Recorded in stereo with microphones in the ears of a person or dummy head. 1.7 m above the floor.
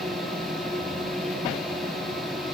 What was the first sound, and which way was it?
A fan, centre (ahead or behind).